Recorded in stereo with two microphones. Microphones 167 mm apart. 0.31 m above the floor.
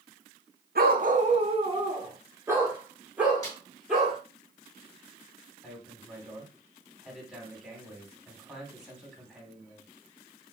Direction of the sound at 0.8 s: 65° right (ahead or behind).